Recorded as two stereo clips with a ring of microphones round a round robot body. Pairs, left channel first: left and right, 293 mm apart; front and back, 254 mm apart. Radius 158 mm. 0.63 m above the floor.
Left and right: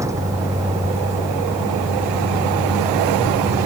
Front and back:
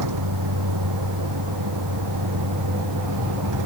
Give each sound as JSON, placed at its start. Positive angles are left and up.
{"t": 0.0, "sound": "a vehicle", "azimuth_deg": -170}